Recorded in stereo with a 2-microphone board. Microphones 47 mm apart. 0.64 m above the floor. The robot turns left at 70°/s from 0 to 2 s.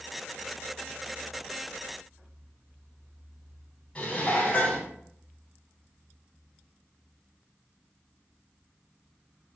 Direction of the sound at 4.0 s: 20° left (ahead or behind).